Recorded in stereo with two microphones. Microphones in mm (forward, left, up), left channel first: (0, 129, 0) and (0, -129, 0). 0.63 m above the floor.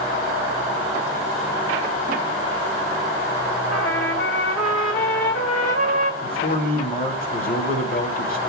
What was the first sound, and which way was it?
A trumpet, 70° left (ahead or behind).